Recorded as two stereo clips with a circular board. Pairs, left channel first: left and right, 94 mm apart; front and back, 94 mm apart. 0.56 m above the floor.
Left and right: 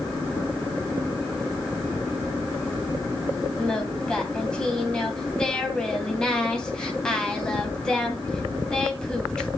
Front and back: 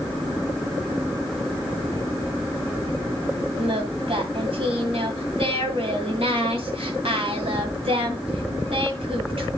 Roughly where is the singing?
Behind.